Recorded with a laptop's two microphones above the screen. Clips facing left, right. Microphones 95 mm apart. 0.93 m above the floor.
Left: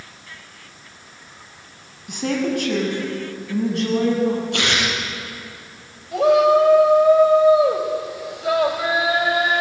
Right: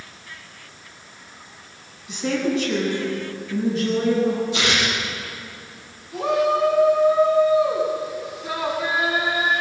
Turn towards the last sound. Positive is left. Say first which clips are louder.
# left 6 dB
turn(degrees=80)